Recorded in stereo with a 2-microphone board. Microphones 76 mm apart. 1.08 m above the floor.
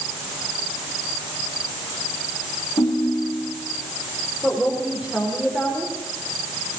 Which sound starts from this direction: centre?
A woman speaking, at 4.4 s.